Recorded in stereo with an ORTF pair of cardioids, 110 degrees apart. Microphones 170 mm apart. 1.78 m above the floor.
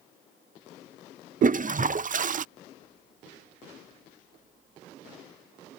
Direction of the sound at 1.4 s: 45° right.